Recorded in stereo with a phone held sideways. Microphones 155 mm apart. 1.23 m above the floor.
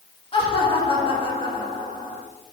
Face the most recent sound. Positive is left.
turn(degrees=35)  # may be behind; listen again after turning